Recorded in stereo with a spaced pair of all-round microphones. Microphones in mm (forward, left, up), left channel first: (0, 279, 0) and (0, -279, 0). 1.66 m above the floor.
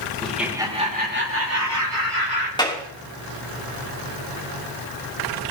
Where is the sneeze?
No sneeze in this recording.